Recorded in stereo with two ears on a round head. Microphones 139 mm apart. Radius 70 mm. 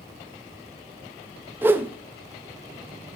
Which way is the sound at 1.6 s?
15° right (ahead or behind).